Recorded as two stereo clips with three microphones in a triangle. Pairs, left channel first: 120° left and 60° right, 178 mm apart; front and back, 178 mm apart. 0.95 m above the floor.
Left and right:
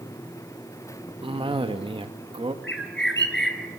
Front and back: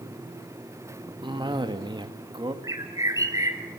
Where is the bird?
105° left, 3.5 m.